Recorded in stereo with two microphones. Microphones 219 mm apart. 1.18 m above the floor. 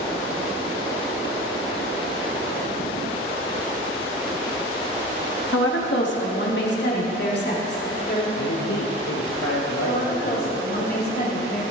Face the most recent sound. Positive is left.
turn(degrees=45)  # may be behind; listen again after turning